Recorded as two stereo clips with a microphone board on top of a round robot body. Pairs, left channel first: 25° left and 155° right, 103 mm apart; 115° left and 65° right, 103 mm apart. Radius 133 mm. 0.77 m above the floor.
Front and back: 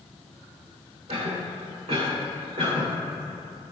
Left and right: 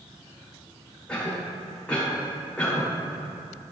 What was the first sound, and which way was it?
A cough, 170° right.